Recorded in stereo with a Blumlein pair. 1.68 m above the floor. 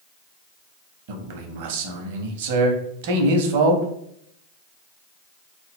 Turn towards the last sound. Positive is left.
turn(degrees=-50)